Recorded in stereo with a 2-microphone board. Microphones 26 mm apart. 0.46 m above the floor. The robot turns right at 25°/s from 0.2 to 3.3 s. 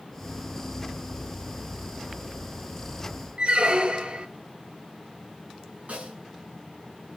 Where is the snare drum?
70° right (ahead or behind), 2 m.